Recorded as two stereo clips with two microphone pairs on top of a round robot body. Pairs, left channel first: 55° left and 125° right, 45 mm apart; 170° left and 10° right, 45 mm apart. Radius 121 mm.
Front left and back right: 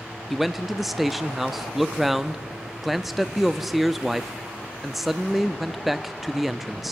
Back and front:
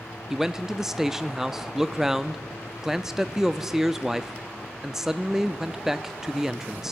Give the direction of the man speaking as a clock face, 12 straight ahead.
3 o'clock.